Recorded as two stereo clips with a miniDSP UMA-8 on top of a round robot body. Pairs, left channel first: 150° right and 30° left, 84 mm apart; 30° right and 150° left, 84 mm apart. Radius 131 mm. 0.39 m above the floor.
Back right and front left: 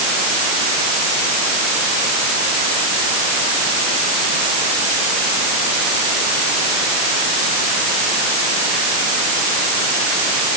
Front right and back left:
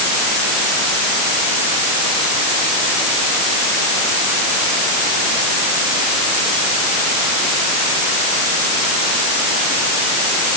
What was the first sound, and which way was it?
Only background noise.